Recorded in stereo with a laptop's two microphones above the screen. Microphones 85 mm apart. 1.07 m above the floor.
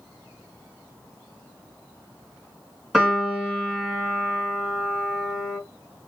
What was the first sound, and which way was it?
A piano, centre (ahead or behind).